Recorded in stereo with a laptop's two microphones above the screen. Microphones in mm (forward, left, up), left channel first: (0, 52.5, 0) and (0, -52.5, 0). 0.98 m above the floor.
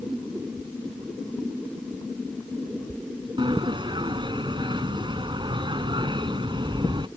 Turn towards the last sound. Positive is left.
turn(degrees=-45)  # may be behind; listen again after turning